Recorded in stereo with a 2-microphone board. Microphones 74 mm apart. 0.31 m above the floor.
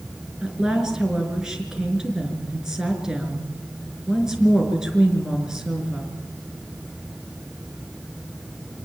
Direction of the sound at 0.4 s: 5° right (ahead or behind).